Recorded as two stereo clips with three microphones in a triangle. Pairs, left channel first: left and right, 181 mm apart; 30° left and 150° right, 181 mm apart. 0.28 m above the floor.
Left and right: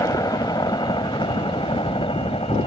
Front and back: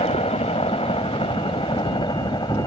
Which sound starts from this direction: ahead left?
A helicopter, at 0.0 s.